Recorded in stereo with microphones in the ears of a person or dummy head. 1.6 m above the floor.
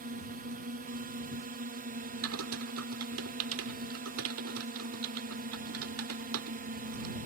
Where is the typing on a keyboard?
80° right.